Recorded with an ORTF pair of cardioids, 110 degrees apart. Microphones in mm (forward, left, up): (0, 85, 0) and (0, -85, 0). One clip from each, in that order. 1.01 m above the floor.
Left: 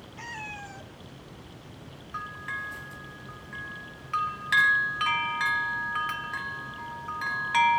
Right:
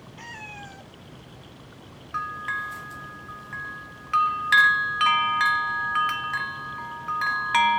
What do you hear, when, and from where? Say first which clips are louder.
0.2 s a cat meowing: left 1 dB; 5° left, 0.8 m
2.1 s a bell: right 6 dB; 25° right, 0.8 m